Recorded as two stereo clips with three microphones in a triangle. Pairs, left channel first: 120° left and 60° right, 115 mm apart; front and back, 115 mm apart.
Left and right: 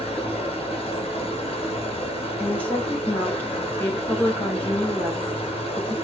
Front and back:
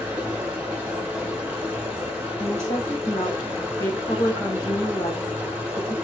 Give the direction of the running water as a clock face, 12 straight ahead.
9 o'clock.